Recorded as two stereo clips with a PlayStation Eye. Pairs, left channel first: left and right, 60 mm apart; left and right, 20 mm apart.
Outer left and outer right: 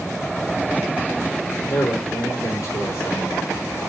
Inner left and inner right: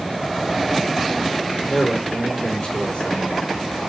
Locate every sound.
1.7 s a man speaking: 80° left, 3.5 m